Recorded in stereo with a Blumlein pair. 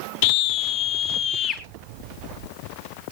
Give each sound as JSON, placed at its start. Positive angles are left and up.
{"t": 0.2, "sound": "a scream", "azimuth_deg": 45, "distance_m": 1.0}